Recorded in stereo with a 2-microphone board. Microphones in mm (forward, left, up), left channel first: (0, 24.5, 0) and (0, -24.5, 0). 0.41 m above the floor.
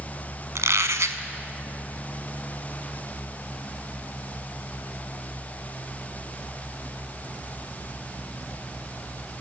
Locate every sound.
0.6 s a squeak: 85° right, 1.1 m